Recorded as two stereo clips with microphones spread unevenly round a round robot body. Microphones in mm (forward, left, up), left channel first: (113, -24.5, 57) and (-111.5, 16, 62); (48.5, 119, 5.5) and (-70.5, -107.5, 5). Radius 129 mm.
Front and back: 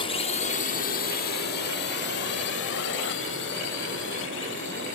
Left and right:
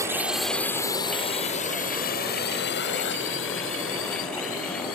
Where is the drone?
50° right; by 5.0 s 25° left.